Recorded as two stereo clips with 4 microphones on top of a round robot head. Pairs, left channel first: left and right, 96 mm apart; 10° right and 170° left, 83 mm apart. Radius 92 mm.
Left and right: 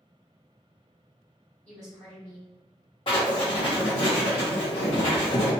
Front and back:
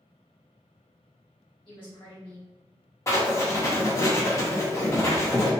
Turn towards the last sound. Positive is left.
turn(degrees=45)